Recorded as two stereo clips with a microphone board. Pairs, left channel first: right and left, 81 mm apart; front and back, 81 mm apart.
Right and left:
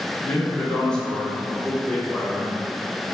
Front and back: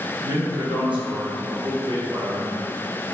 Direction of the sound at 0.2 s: 170° right.